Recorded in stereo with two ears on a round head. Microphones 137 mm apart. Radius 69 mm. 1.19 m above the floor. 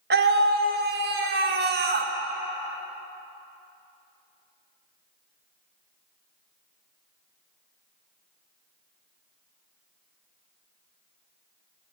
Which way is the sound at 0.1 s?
70° right (ahead or behind).